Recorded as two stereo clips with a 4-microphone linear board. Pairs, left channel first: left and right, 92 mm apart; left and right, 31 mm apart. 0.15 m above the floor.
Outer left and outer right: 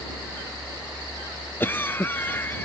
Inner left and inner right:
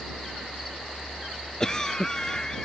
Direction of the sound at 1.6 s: 25° left (ahead or behind).